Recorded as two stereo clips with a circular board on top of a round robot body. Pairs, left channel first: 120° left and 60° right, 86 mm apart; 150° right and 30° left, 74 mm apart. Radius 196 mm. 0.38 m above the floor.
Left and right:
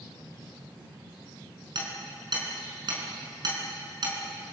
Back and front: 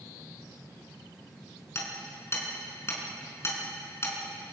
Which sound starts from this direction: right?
Hammering, at 1.8 s.